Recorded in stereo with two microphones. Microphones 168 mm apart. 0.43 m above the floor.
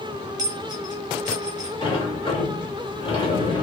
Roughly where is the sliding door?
Left.